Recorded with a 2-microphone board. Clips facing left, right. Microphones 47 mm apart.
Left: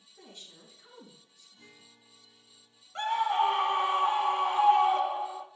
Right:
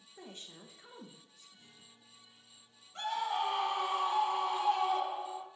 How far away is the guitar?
About 1.1 m.